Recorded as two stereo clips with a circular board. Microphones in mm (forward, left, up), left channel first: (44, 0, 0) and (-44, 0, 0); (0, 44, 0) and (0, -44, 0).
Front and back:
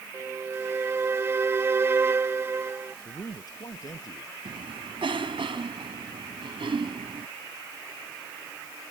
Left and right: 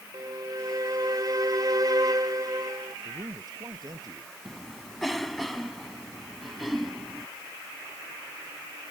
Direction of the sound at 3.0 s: 45° right.